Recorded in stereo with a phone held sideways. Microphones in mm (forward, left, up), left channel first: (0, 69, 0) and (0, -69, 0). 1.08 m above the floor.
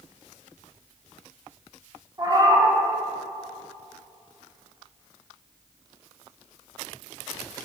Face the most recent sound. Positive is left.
turn(degrees=-30)  # may be behind; listen again after turning